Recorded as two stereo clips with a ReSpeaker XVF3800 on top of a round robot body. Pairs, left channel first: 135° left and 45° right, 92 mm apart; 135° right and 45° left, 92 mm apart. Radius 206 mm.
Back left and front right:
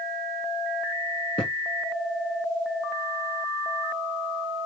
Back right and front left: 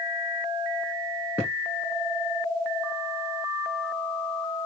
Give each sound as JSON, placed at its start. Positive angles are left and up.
{"t": 1.4, "sound": "a thud", "azimuth_deg": 115, "distance_m": 1.2}